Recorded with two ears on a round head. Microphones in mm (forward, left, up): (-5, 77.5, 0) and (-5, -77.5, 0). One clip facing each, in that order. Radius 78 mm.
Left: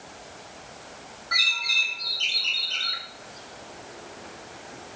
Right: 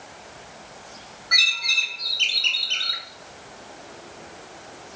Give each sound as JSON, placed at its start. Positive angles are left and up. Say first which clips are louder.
{"t": 1.3, "sound": "a bird", "louder": "right 2 dB", "side_deg": -30, "distance_m": 1.0}